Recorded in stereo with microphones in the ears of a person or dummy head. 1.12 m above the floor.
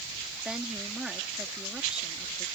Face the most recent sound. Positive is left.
turn(degrees=-5)  # may be behind; listen again after turning